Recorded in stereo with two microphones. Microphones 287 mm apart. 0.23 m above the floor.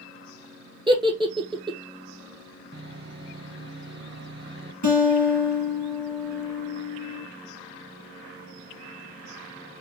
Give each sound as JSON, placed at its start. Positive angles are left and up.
{"t": 0.9, "sound": "a giggle", "side_deg": -15, "distance_m": 0.9}
{"t": 2.7, "sound": "sawing", "side_deg": -40, "distance_m": 1.2}
{"t": 4.8, "sound": "a guitar", "side_deg": 75, "distance_m": 3.5}